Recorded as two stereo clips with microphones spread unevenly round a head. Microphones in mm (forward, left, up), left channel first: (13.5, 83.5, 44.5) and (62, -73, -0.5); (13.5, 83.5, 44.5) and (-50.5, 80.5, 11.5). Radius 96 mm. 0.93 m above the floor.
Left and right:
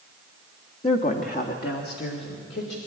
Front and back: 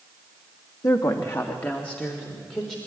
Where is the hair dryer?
I don't hear a hair dryer.